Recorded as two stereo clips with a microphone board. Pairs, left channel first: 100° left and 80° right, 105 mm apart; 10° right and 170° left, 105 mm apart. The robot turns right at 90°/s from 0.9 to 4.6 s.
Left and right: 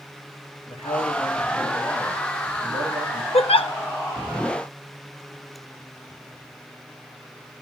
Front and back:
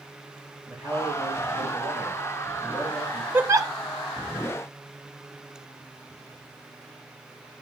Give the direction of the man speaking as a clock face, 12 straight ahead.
8 o'clock.